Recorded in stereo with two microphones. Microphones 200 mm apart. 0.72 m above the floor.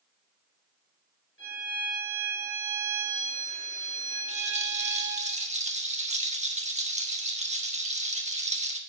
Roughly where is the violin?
Left.